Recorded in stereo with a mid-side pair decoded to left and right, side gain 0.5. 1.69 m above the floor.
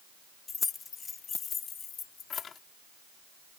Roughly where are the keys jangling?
Ahead left.